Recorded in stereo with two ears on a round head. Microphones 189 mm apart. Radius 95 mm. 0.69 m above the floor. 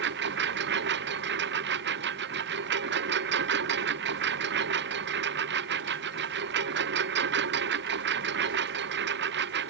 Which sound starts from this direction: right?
A lawn mower, at 0.0 s.